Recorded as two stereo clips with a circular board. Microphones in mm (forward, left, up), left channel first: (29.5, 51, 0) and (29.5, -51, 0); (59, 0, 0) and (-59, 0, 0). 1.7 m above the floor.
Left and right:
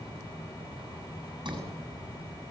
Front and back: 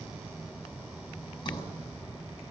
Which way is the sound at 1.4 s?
50° right.